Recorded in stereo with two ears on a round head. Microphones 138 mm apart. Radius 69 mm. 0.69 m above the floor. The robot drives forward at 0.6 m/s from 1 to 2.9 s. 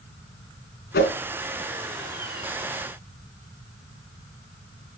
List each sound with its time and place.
0.9 s a whoosh: 70° left (ahead or behind), 3.5 m